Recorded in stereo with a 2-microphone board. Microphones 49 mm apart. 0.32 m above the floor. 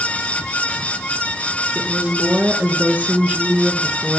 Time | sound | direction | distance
1.8 | a woman speaking | 35° right (ahead or behind) | 4 m